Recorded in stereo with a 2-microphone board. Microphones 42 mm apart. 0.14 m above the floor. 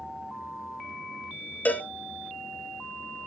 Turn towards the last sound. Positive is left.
turn(degrees=40)  # may be behind; listen again after turning